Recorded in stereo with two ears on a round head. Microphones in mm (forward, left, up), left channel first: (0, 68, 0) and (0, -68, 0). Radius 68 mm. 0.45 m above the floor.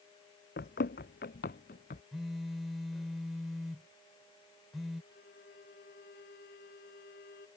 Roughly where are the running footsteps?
Left.